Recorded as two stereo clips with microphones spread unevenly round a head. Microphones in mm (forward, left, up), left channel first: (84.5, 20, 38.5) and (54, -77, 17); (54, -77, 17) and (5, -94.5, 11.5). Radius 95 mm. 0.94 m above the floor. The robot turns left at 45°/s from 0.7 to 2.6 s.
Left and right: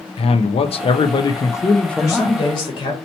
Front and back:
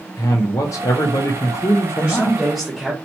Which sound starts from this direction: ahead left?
A man speaking, at 0.2 s.